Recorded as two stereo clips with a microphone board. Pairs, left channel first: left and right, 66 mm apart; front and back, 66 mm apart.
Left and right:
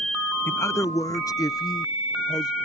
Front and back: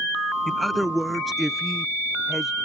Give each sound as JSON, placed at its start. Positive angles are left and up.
{"t": 0.5, "sound": "a man speaking", "azimuth_deg": 85}